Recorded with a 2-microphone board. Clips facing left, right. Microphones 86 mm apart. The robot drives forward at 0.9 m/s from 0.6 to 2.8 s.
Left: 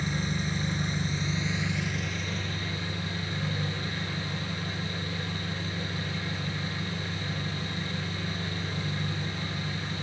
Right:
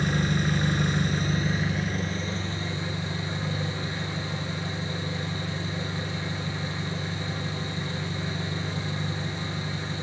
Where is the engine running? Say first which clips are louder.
Right 6 dB; 65° right (ahead or behind), 1.0 m; by 10.0 s 25° right (ahead or behind), 2 m.